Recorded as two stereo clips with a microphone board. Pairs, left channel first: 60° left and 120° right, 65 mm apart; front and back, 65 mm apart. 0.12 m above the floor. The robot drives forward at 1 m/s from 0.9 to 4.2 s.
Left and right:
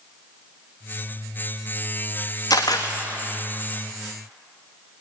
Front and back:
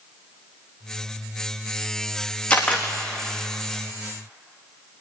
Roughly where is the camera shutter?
Ahead left.